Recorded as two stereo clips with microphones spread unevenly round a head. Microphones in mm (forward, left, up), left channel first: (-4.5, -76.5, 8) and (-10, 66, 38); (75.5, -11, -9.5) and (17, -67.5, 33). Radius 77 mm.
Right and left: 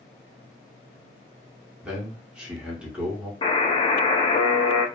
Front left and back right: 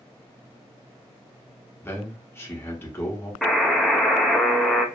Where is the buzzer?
35° right, 0.6 m.